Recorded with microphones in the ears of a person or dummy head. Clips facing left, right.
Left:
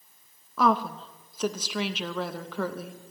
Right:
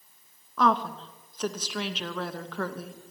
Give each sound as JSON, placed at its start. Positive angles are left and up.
{"t": 0.6, "sound": "a woman speaking", "side_deg": 5, "distance_m": 0.6}